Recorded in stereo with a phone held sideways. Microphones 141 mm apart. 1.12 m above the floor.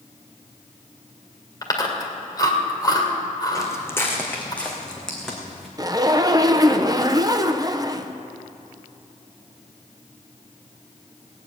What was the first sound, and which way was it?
Chewing, 30° left (ahead or behind).